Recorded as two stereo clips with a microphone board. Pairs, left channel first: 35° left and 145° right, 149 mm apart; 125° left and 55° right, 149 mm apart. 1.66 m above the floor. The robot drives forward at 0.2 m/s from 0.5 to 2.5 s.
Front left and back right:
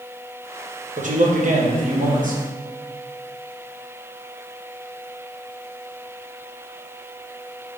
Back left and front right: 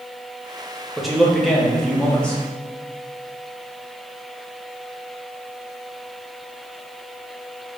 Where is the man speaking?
145° right, 0.8 m; by 2.4 s 155° right, 1.0 m.